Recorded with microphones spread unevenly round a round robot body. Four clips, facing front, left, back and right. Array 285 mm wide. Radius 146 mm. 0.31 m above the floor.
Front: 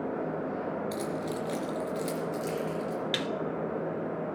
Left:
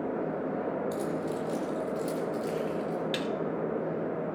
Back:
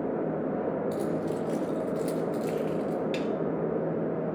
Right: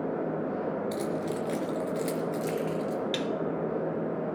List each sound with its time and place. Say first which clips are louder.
0.9 s keys jangling: right 1 dB, back 3 dB; 50° right, 3.5 m; by 3.0 s 100° right, 4 m
3.1 s a snare drum: right 1 dB, back 3 dB; 10° left, 0.9 m